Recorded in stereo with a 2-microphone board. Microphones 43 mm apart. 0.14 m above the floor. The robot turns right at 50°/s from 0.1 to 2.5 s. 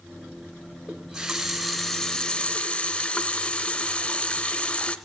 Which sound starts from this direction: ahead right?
A running tap, at 0.9 s.